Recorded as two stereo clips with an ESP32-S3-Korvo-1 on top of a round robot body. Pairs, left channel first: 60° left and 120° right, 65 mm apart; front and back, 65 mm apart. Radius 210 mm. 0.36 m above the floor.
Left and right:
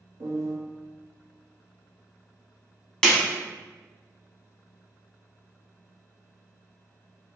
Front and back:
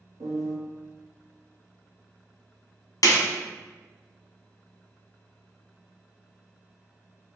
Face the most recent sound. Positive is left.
turn(degrees=-20)